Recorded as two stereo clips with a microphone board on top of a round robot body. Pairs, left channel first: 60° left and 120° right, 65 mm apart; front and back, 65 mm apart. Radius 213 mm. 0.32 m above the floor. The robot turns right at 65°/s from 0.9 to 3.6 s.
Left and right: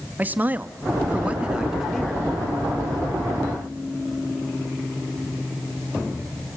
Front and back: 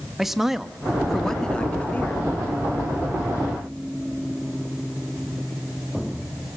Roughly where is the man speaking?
Right.